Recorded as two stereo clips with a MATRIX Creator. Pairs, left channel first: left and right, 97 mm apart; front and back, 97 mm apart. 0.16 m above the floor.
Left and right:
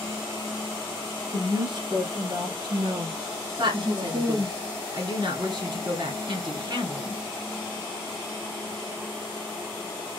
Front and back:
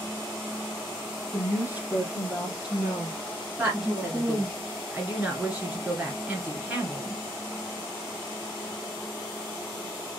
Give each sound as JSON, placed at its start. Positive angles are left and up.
{"t": 1.3, "sound": "a woman speaking", "azimuth_deg": -120, "distance_m": 1.7}
{"t": 3.6, "sound": "a woman speaking", "azimuth_deg": -110, "distance_m": 2.0}